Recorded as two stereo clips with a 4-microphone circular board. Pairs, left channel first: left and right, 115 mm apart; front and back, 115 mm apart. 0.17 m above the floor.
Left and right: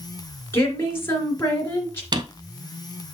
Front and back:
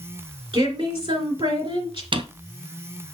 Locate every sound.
0.5 s a woman speaking: 155° left, 3 m
2.1 s a drawer: 140° right, 0.6 m